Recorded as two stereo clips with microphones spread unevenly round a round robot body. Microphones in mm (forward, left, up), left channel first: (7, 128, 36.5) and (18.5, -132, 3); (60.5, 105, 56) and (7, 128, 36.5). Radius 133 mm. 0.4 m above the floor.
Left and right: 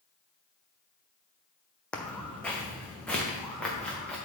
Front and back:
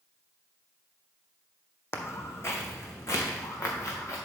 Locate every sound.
1.9 s footsteps: 10° left, 1.2 m; by 4.2 s 5° left, 3 m